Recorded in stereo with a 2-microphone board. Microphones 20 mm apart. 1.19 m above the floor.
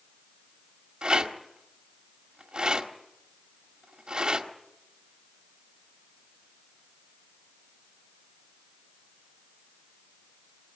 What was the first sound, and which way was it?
A rattle, 50° right (ahead or behind).